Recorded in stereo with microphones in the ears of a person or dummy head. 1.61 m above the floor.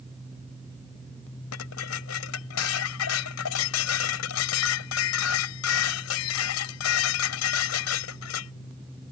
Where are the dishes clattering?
80° left.